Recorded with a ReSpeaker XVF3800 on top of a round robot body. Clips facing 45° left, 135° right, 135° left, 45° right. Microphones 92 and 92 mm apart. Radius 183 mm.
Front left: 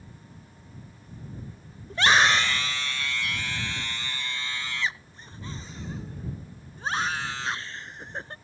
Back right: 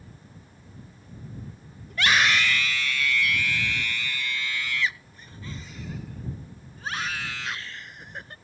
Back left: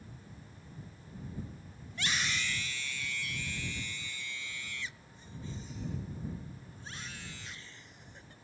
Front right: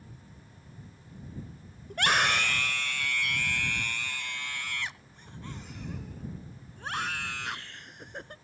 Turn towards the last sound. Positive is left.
turn(degrees=-15)